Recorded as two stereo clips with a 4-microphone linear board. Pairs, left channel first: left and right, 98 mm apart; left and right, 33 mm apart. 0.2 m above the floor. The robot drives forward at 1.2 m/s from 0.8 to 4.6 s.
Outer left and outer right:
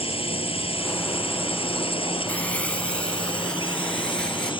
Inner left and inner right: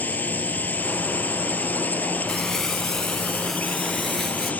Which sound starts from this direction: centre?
Crumpling, at 2.3 s.